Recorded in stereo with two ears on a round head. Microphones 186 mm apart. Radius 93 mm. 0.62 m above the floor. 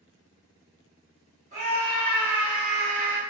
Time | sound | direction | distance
1.5 | a scream | 35° right (ahead or behind) | 1.3 m